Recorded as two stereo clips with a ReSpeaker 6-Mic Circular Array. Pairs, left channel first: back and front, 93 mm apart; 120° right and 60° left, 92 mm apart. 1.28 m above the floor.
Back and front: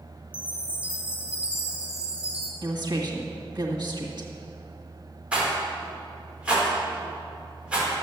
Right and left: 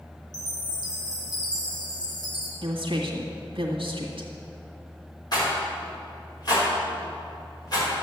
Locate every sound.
0.3 s a chime: 80° right, 2.0 m
2.6 s a woman speaking: 40° left, 1.8 m
5.3 s a rattle: 80° right, 4.5 m